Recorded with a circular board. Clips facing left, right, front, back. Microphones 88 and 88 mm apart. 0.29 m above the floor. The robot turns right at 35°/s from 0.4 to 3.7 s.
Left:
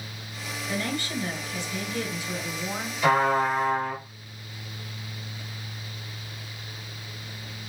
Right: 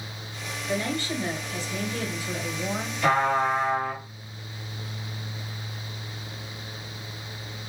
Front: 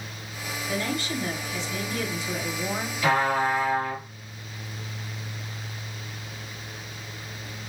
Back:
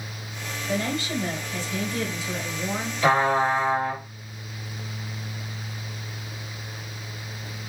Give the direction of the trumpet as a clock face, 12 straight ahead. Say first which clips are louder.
Left 1 dB, back 3 dB; 6 o'clock.